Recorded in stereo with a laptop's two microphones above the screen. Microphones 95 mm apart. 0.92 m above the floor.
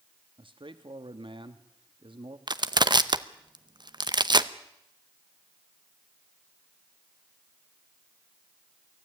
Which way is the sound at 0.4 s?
60° right (ahead or behind).